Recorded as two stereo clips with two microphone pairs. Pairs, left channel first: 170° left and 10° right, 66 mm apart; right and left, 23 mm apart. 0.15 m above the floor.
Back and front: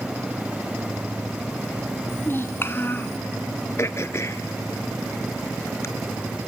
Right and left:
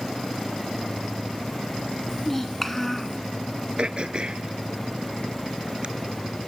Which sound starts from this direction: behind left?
Throat clearing, at 3.8 s.